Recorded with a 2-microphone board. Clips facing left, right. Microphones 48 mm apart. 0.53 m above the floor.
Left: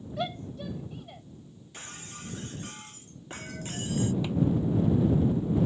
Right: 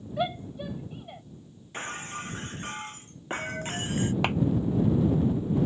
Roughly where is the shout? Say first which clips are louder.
Right 4 dB; centre.